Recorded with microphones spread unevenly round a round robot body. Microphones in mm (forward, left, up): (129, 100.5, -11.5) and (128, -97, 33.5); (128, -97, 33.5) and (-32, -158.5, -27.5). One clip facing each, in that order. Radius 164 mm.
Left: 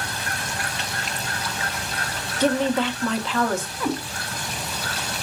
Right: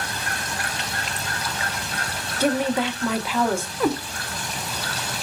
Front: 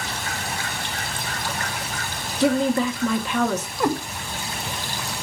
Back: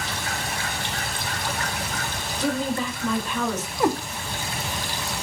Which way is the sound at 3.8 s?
75° right.